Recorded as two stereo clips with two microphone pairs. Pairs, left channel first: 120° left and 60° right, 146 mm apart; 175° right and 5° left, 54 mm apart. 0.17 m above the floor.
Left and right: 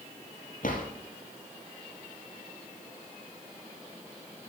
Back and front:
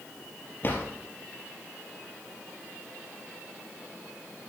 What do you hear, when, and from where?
0.6 s a drawer: 135° left, 3 m